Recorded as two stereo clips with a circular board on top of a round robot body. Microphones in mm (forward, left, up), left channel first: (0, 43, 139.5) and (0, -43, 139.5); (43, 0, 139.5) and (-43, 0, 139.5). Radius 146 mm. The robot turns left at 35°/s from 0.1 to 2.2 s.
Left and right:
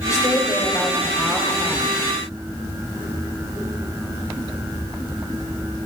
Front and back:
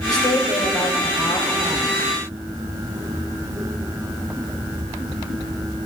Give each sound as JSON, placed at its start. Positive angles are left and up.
{"t": 0.1, "sound": "a woman speaking", "azimuth_deg": 40, "distance_m": 3.0}